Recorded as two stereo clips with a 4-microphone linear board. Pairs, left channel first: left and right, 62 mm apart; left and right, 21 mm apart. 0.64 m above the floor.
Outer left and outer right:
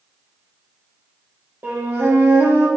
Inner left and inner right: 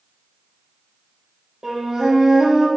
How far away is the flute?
About 0.8 m.